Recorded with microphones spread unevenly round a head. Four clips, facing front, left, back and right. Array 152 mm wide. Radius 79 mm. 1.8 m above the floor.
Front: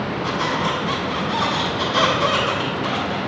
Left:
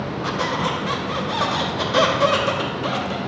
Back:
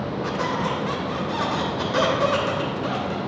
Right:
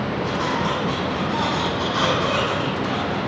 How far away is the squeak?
About 2.5 m.